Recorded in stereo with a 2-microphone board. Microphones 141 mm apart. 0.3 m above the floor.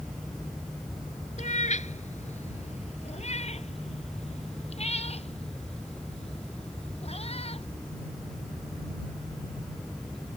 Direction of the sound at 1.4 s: 60° left (ahead or behind).